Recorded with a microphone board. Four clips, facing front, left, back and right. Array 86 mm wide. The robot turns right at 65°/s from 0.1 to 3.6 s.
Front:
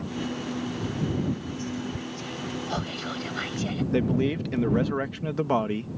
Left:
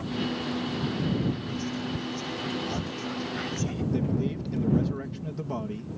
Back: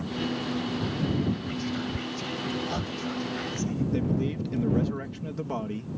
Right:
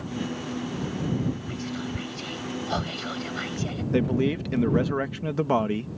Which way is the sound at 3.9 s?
55° right.